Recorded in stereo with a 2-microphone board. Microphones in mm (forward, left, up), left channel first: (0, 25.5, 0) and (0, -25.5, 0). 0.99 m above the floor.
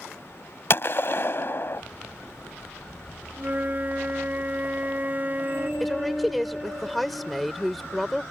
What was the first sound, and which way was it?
A gunshot, 50° left (ahead or behind).